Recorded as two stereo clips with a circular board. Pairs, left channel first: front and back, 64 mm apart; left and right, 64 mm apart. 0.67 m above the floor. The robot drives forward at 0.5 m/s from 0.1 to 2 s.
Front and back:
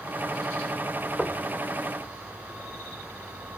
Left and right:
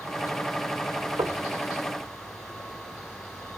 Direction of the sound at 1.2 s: 95° right.